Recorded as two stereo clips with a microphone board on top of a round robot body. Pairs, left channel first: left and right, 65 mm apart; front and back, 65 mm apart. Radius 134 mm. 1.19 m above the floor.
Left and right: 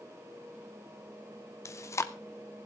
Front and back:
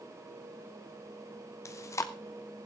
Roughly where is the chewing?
Ahead left.